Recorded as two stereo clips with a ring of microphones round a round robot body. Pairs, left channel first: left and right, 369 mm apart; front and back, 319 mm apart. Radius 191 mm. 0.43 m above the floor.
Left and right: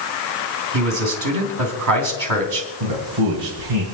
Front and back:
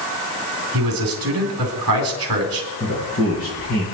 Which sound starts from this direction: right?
A man speaking, at 2.8 s.